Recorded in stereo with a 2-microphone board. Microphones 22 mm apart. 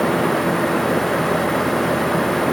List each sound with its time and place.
Only background noise.